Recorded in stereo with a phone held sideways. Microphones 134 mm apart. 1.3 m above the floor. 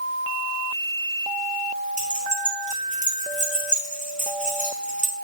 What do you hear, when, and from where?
2.0 s keys jangling: 70° left (ahead or behind), 1.8 m